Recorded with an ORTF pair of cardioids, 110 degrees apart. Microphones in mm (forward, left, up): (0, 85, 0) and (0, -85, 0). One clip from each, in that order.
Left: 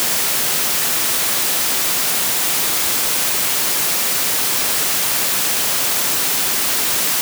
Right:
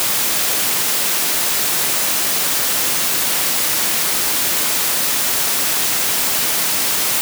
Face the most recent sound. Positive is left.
No sound to turn to.